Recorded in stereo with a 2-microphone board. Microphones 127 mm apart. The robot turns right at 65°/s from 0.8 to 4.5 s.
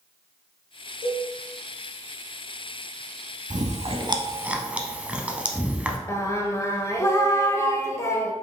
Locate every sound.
1.0 s a cowbell: 85° right, 0.9 m; by 1.3 s 70° right (ahead or behind), 0.9 m
3.5 s chewing: 70° right (ahead or behind), 0.6 m; by 6.0 s 10° right (ahead or behind), 0.6 m
6.1 s singing: 25° left (ahead or behind), 0.6 m